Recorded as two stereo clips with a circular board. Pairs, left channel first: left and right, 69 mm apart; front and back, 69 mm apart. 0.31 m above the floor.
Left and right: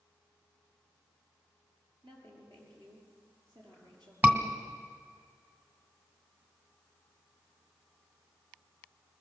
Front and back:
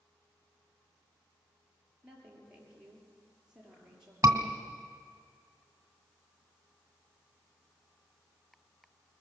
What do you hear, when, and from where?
2.0 s a woman speaking: 100° right, 6 m
4.2 s a scream: 150° right, 2 m